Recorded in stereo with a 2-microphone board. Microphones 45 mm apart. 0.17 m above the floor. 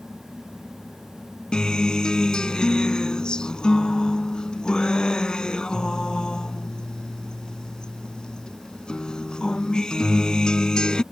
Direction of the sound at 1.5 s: 20° left (ahead or behind).